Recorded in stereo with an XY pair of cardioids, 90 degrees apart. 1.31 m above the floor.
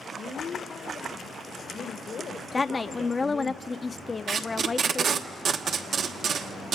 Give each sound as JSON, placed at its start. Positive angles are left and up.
{"t": 0.1, "sound": "a woman speaking", "azimuth_deg": 60, "distance_m": 1.1}
{"t": 2.5, "sound": "a woman speaking", "azimuth_deg": 30, "distance_m": 0.5}
{"t": 4.3, "sound": "tape being pulled", "azimuth_deg": -70, "distance_m": 1.2}